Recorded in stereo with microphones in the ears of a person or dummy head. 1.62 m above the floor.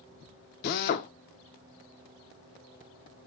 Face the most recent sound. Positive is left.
turn(degrees=50)  # may be behind; listen again after turning